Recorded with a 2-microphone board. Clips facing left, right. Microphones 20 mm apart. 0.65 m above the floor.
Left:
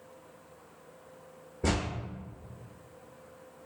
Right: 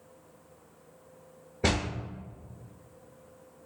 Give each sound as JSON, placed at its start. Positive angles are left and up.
{"t": 1.6, "sound": "a door slam", "side_deg": -60, "distance_m": 2.0}